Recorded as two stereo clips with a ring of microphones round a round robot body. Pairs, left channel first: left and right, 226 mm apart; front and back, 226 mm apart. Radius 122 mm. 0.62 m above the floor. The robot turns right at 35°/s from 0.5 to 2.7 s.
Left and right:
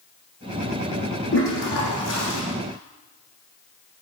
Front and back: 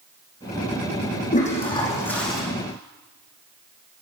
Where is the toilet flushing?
55° left, 5.5 m; by 2.4 s 90° left, 5.5 m.